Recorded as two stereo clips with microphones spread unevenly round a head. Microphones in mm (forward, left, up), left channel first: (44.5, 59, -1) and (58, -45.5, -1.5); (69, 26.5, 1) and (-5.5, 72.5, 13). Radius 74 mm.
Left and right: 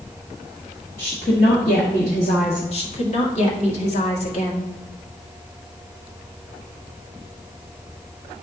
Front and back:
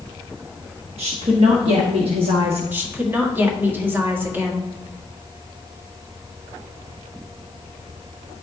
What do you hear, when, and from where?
1.0 s a woman speaking: 145° left, 1.2 m
2.7 s a woman speaking: 80° left, 2 m